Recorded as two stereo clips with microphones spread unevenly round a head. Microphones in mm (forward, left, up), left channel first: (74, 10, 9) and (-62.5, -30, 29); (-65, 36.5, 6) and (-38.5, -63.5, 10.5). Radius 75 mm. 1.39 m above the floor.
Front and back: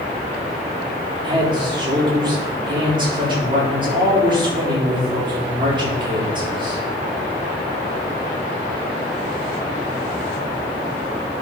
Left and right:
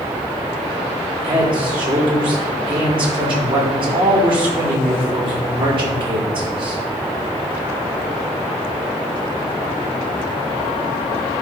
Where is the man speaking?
105° right, 4 m.